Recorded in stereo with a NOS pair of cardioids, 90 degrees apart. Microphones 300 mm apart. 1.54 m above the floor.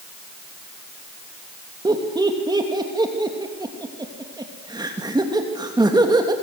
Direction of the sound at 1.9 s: 15° right.